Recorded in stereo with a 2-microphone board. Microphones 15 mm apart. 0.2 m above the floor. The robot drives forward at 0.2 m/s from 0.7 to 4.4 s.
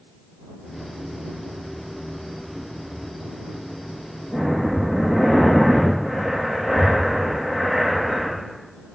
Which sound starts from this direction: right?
Breathing, at 4.3 s.